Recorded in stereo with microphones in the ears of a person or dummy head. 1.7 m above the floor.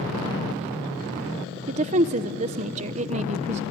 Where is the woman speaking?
35° right (ahead or behind), 0.9 m.